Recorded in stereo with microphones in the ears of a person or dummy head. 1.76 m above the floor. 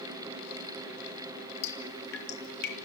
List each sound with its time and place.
1.6 s dripping: 60° left (ahead or behind), 4 m